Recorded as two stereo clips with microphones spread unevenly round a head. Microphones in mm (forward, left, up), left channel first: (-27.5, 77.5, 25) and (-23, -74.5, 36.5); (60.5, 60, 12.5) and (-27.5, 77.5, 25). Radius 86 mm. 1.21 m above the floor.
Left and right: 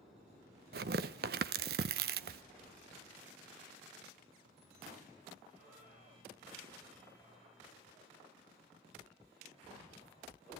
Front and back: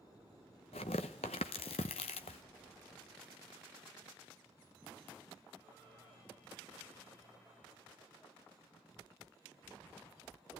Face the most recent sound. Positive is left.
turn(degrees=-55)